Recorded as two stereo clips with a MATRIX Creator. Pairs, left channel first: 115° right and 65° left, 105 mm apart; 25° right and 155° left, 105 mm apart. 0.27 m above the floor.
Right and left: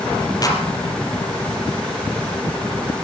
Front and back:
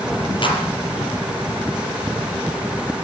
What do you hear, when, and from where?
0.4 s a clap: 60° right, 5 m